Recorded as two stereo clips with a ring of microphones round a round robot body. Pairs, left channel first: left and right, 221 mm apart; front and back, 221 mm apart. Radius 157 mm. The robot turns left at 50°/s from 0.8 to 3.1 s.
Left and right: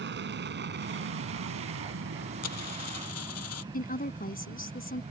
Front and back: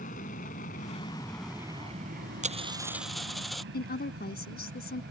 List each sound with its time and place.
0.0 s an aircraft: 60° right; by 5.1 s 150° right
2.4 s a dropped coin: 125° left; by 3.6 s 90° left
3.7 s a woman speaking: 40° left